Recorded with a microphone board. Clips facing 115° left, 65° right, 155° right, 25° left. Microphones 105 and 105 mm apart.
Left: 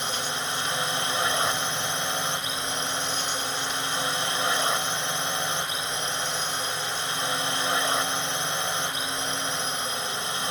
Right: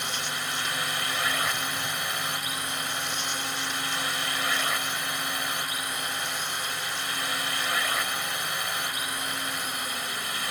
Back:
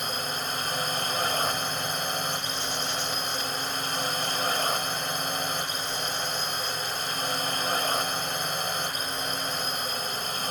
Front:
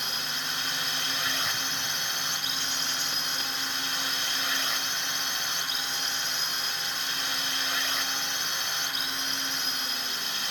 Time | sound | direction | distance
0.0 | a drone | 170° left | ?